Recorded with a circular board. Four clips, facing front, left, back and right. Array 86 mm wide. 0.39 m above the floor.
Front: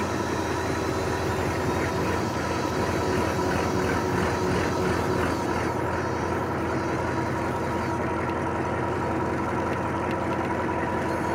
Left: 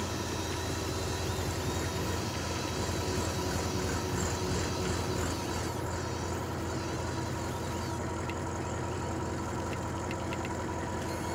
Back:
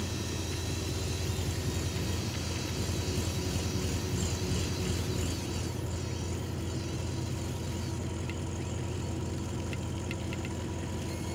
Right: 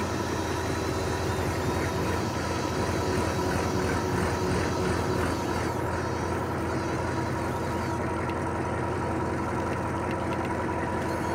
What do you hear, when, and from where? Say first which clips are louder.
0.0 s an engine running: right 6 dB, front 11 dB; 25° right